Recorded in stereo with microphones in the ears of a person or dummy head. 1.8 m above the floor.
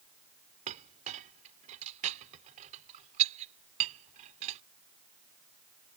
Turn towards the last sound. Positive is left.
turn(degrees=-35)  # may be behind; listen again after turning